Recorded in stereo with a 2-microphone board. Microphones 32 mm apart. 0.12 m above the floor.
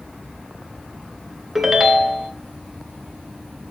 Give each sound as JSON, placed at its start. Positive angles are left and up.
{"t": 1.6, "sound": "a ringtone", "side_deg": -10, "distance_m": 1.1}